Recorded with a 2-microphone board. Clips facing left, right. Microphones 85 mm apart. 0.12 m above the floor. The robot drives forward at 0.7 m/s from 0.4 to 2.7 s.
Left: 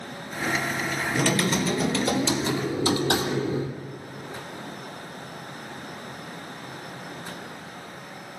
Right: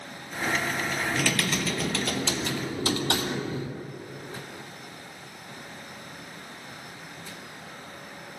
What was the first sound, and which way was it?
Typing on a keyboard, 30° left (ahead or behind).